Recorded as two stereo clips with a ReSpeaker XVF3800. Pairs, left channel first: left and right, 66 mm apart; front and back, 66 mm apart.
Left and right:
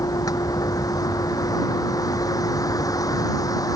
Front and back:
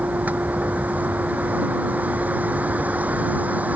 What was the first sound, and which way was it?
A vehicle, 115° left.